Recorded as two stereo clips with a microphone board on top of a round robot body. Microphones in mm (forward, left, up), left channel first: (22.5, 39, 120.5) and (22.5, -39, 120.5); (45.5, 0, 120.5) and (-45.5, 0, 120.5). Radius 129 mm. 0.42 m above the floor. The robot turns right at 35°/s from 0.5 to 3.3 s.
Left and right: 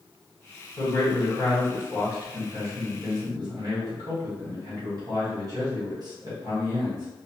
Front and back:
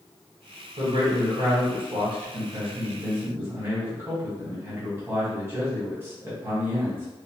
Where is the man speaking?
155° left, 1.7 m; by 7.1 s 120° right, 1.7 m.